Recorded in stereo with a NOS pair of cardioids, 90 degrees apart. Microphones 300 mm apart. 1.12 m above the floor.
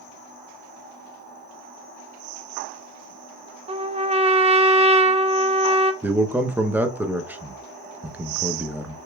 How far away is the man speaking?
About 0.7 m.